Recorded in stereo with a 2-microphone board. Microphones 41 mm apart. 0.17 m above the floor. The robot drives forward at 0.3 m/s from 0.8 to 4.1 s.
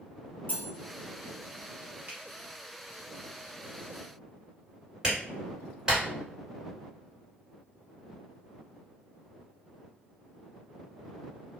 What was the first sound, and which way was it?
Cutlery clinking, 45° left (ahead or behind).